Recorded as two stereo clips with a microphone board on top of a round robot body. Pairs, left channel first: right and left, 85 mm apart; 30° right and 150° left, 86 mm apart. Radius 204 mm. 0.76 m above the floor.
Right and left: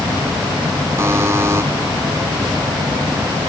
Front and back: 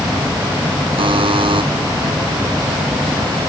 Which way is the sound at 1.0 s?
150° left.